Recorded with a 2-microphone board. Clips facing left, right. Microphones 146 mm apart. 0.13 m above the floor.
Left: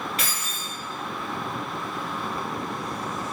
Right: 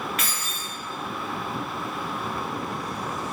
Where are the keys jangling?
35° left (ahead or behind), 1.3 m.